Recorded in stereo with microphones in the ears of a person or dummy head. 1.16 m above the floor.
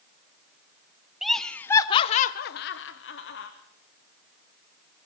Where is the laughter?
5° right (ahead or behind), 0.7 m; by 3.5 s 60° left (ahead or behind), 0.9 m.